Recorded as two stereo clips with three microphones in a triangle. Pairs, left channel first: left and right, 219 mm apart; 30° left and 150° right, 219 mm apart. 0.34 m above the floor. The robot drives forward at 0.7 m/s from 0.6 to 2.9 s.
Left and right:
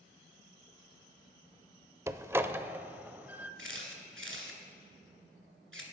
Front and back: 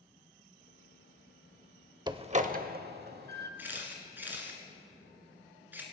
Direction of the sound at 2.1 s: 140° right.